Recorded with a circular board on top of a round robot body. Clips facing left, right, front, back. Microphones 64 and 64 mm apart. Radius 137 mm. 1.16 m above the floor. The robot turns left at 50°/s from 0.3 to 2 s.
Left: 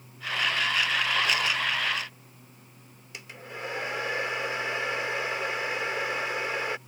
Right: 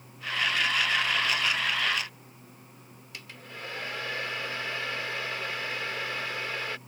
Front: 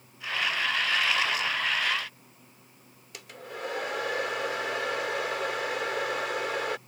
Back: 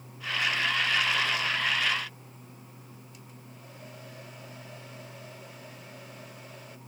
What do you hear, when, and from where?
3.1 s a hair dryer: 20° left